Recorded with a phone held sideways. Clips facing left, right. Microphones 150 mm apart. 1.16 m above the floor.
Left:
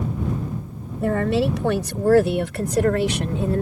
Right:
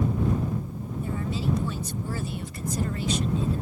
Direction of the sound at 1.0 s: 80° left.